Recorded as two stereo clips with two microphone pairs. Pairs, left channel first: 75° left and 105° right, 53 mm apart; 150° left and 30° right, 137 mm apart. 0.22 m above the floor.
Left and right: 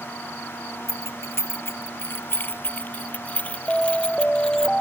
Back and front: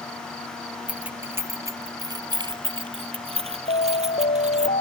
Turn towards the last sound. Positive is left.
turn(degrees=155)